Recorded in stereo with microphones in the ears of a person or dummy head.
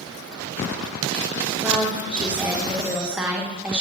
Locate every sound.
1.6 s a woman speaking: 10° right (ahead or behind), 1.4 m